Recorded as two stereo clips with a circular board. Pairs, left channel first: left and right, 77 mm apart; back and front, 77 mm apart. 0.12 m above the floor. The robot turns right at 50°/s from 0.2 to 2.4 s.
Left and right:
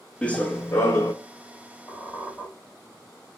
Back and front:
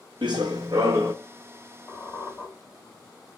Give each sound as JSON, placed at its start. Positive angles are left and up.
{"t": 0.2, "sound": "running footsteps", "azimuth_deg": 15, "distance_m": 0.6}
{"t": 1.9, "sound": "a squeak", "azimuth_deg": 125, "distance_m": 1.8}